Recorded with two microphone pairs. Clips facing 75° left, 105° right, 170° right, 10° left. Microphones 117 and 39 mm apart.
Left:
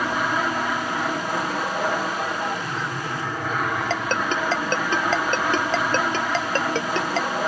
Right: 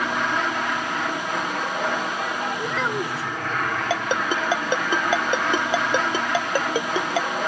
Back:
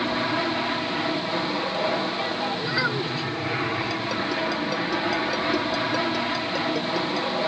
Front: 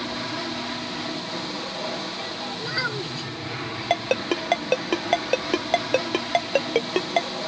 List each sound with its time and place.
0.0 s an aircraft: 155° left
2.6 s a child speaking: 85° right
3.9 s a ringtone: 25° right